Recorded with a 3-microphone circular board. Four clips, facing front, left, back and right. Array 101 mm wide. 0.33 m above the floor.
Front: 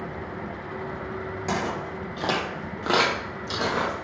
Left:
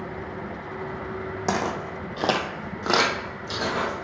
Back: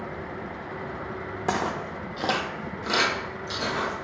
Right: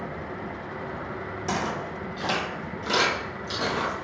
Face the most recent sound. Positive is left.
turn(degrees=20)